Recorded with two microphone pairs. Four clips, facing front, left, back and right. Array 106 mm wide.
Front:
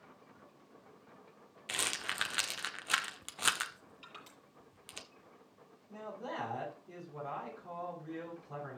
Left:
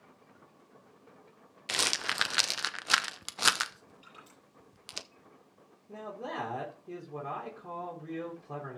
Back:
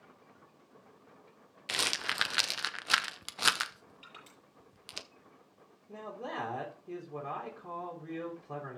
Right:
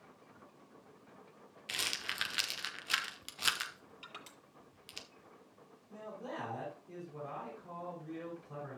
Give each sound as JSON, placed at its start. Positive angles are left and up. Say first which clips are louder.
{"t": 1.7, "sound": "a rattle", "louder": "left 9 dB, back 4 dB", "azimuth_deg": 110, "distance_m": 0.6}
{"t": 4.0, "sound": "crushing", "louder": "right 3 dB, front 1 dB", "azimuth_deg": -100, "distance_m": 6.5}
{"t": 5.9, "sound": "a man speaking", "louder": "left 5 dB, back 2 dB", "azimuth_deg": 130, "distance_m": 3.0}